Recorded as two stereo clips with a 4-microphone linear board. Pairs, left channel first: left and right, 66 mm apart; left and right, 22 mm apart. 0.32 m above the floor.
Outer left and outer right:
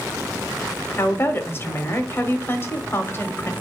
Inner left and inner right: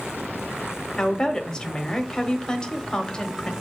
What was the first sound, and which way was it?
A woman speaking, 35° left (ahead or behind).